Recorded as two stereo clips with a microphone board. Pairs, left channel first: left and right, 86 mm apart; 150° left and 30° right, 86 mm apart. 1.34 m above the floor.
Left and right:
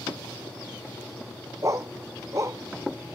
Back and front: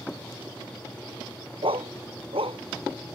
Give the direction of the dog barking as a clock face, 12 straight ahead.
1 o'clock.